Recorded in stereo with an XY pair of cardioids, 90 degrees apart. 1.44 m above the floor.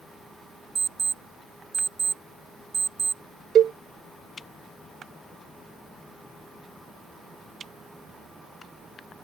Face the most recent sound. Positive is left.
turn(degrees=-70)